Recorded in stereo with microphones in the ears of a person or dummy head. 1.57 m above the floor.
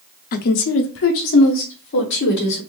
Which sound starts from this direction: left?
A woman speaking, at 0.3 s.